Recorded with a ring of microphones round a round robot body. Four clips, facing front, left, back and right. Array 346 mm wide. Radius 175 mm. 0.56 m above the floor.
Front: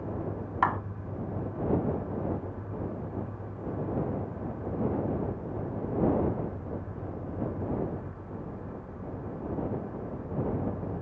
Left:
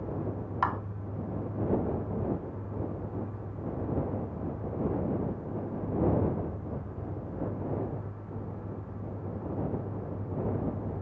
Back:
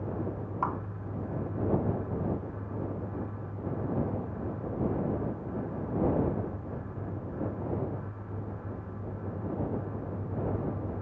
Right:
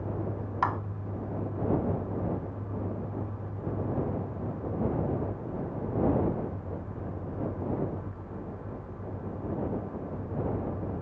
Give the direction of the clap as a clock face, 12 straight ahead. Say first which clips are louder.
Right 1 dB, front 5 dB; 12 o'clock.